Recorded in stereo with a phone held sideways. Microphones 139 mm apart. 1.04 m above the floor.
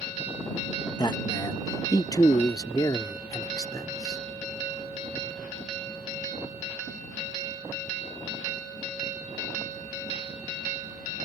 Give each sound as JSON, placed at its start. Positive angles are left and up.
{"t": 1.0, "sound": "a man speaking", "side_deg": 30}